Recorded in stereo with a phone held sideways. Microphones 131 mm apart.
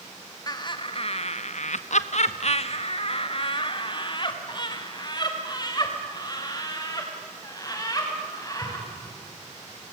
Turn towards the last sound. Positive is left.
turn(degrees=30)  # may be behind; listen again after turning